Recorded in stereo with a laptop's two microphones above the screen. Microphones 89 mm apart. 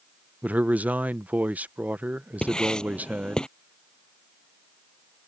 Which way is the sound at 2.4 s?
10° left (ahead or behind).